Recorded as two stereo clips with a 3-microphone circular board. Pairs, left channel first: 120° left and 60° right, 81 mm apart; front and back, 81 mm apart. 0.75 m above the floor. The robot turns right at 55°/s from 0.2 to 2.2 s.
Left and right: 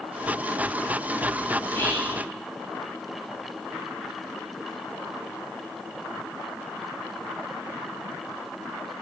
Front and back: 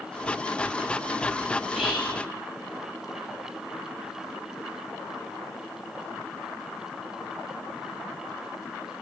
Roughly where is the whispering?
Left.